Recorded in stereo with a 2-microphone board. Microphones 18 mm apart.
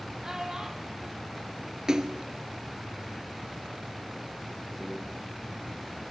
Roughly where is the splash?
Right.